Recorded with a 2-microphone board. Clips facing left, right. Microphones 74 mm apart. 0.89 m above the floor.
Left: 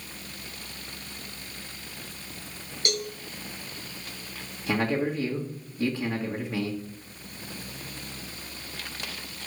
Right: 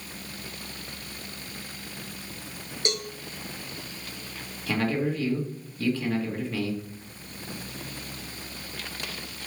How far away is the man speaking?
About 1.5 m.